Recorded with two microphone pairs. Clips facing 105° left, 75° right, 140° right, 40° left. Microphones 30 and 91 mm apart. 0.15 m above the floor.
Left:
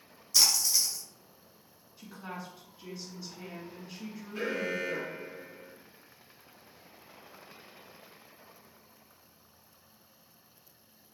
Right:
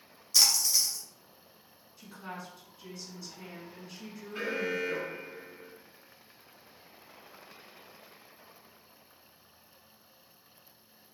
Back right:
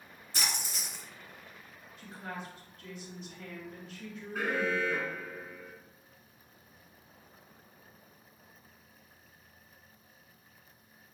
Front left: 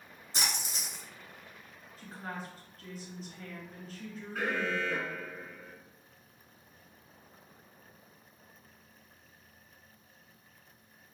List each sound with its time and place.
0.3 s a splash: 25° left, 0.9 m
2.0 s a woman speaking: 45° left, 1.3 m
4.3 s an alarm: 55° right, 1.2 m